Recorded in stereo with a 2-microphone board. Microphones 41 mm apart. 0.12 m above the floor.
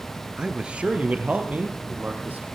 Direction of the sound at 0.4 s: 20° right (ahead or behind).